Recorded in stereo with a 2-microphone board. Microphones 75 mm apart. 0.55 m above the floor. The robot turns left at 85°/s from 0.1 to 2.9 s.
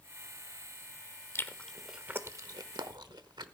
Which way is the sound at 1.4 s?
35° left (ahead or behind).